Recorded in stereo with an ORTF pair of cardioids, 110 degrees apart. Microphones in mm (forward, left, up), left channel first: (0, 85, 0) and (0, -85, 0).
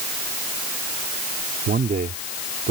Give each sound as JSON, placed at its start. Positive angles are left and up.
{"t": 1.7, "sound": "a man speaking", "azimuth_deg": -65}